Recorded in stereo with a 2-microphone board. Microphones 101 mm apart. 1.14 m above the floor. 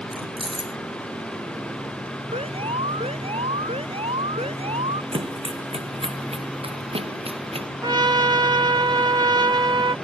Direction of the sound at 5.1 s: 65° right (ahead or behind).